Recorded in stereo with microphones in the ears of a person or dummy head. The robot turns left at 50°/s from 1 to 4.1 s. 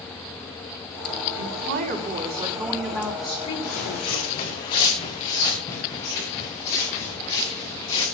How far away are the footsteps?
About 5.5 m.